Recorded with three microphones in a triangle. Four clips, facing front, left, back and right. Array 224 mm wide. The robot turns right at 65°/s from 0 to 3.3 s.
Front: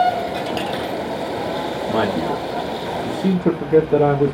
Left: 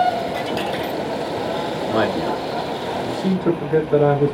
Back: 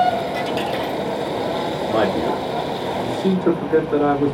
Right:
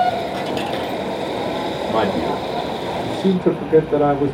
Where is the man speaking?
105° right, 1.1 m; by 4.3 s 10° right, 1.1 m.